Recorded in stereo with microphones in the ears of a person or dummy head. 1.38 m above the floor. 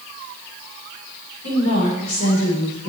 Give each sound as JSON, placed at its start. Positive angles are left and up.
{"t": 1.4, "sound": "a woman speaking", "side_deg": 60, "distance_m": 5.0}